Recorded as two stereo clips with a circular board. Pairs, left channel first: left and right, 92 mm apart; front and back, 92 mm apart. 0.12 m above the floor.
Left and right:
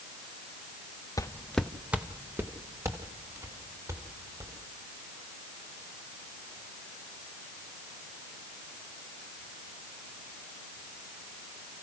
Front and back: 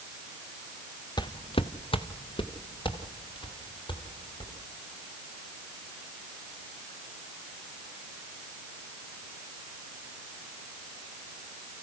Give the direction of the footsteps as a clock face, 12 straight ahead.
11 o'clock.